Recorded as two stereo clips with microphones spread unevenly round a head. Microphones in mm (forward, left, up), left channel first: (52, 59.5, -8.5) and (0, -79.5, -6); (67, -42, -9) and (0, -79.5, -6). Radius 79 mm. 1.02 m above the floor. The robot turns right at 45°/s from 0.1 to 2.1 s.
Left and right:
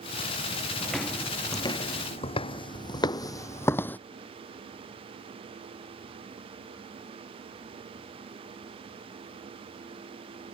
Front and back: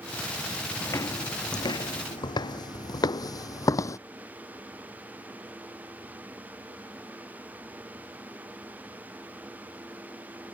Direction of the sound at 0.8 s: 25° right.